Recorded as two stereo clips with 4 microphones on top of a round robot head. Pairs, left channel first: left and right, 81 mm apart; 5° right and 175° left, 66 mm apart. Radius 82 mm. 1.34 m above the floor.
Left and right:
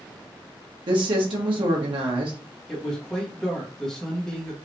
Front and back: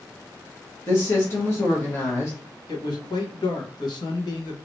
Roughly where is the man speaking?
Ahead.